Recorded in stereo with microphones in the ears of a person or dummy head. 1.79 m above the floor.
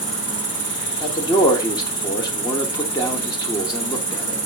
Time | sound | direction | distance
0.0 | an insect | 60° left (ahead or behind) | 1.3 m
1.0 | a man speaking | 25° left (ahead or behind) | 1.0 m